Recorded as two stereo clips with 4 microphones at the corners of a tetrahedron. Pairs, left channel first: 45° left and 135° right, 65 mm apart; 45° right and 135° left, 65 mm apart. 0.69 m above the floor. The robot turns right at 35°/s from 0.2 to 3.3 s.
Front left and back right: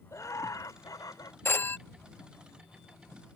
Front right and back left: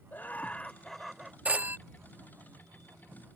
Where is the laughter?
15° left; by 1.4 s 55° left.